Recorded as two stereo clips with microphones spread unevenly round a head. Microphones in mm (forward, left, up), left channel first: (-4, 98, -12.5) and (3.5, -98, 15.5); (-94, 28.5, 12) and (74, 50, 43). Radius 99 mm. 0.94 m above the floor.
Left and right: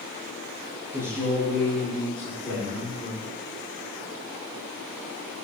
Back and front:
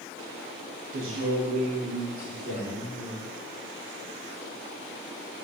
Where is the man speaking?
5° right, 0.8 m.